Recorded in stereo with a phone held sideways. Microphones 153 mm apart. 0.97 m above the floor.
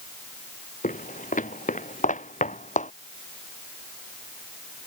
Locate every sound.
0.8 s footsteps: 55° left (ahead or behind); by 2.9 s 50° left (ahead or behind)